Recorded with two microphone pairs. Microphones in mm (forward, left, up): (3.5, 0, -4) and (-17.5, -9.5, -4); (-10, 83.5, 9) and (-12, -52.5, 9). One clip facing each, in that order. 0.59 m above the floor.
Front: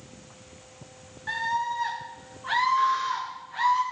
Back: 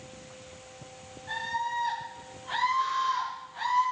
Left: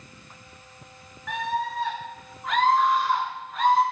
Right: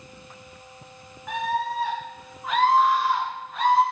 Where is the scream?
15° right, 8 m; by 3.8 s straight ahead, 7 m.